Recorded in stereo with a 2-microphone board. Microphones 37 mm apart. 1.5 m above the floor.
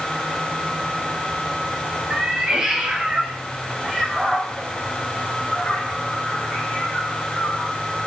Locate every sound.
2.1 s a cat meowing: 25° right (ahead or behind), 3 m; by 7.7 s 35° left (ahead or behind), 4 m